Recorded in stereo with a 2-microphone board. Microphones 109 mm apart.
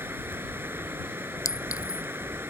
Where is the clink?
30° left (ahead or behind).